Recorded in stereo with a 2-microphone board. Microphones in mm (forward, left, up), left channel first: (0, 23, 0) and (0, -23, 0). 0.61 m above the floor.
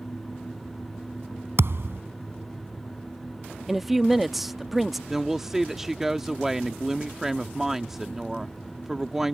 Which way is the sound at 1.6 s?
65° right (ahead or behind).